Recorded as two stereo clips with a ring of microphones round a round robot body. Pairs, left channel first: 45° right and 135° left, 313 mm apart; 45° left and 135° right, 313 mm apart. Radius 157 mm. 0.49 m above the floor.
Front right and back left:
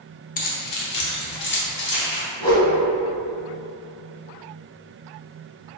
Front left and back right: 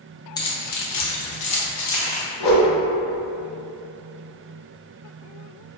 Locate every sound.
0.4 s keys jangling: 20° right, 0.5 m; by 2.2 s 10° left, 1.3 m
2.4 s a whoosh: 30° left, 1.1 m